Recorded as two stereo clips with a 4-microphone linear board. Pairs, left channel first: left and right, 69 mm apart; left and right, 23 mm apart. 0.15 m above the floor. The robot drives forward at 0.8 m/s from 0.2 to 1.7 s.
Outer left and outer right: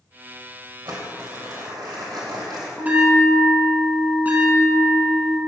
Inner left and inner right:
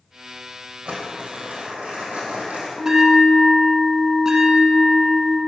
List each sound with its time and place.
0.8 s crumpling: 75° right (ahead or behind), 2.5 m
2.8 s a bell: 25° right (ahead or behind), 1.3 m